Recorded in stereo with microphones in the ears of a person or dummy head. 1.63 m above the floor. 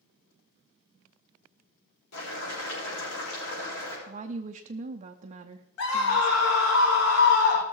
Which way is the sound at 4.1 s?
35° right (ahead or behind).